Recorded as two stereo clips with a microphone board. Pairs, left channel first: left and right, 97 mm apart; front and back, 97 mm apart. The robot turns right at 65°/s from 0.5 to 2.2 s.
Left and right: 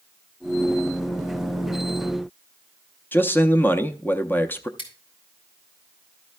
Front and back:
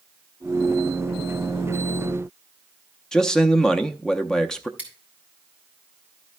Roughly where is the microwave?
I don't hear a microwave.